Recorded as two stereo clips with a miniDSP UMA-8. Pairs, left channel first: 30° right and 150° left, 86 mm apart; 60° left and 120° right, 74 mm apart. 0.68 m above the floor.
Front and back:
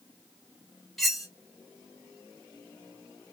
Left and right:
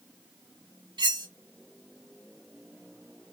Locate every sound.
1.0 s cutlery clinking: 120° right, 1.9 m